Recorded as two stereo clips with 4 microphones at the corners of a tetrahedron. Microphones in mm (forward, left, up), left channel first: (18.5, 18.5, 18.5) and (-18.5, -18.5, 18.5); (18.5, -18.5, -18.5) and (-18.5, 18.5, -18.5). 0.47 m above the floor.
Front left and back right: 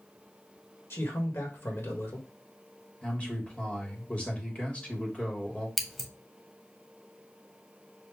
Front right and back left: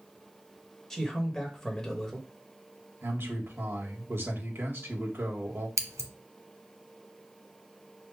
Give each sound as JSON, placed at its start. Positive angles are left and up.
{"t": 0.9, "sound": "a man speaking", "azimuth_deg": 35, "distance_m": 1.7}
{"t": 3.0, "sound": "a man speaking", "azimuth_deg": 105, "distance_m": 1.8}
{"t": 5.8, "sound": "scissors", "azimuth_deg": 135, "distance_m": 0.8}